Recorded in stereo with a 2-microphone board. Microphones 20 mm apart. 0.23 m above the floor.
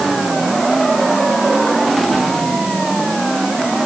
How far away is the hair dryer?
I don't hear a hair dryer.